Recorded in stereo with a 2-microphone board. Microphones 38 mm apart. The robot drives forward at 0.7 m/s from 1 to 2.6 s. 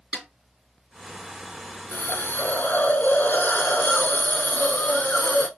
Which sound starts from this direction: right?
A snare drum, at 0.1 s.